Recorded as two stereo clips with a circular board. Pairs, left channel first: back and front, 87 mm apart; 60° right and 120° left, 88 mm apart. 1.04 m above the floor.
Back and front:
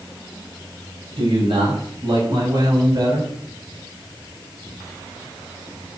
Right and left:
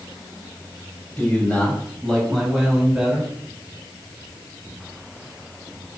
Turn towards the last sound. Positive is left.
turn(degrees=35)